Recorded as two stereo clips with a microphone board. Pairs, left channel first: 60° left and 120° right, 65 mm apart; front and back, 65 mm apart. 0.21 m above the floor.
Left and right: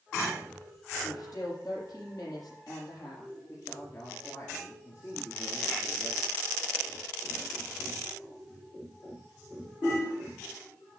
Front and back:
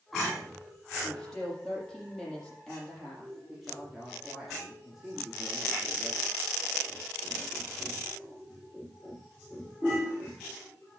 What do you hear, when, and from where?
1.0 s a woman speaking: 85° left, 7 m
3.5 s a man speaking: 95° left, 3.5 m